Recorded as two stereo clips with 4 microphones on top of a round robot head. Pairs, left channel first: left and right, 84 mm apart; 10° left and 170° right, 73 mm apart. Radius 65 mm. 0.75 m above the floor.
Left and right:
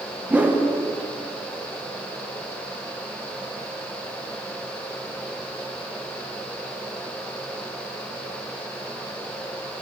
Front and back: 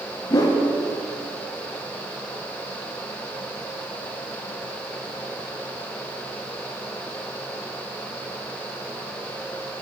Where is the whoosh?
20° right, 0.8 m.